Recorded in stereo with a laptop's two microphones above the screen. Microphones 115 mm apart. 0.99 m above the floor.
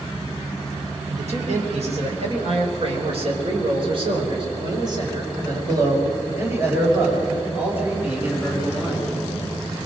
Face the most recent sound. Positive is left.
turn(degrees=-10)  # may be behind; listen again after turning